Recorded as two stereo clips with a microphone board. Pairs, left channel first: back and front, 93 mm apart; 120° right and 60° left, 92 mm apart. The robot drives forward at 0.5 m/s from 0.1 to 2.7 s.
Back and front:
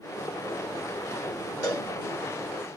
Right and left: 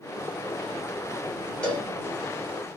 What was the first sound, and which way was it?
A cowbell, 170° left.